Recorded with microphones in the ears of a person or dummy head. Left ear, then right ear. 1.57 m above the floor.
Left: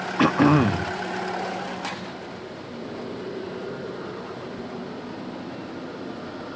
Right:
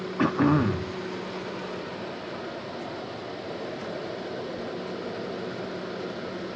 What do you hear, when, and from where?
0.2 s throat clearing: 25° left (ahead or behind), 1.0 m